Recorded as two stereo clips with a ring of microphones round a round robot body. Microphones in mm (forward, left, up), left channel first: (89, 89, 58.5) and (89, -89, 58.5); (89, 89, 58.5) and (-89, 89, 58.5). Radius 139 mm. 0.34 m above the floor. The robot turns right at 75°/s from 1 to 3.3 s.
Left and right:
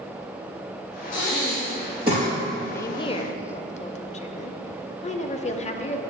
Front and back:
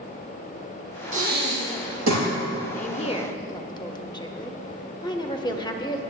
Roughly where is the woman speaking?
Ahead.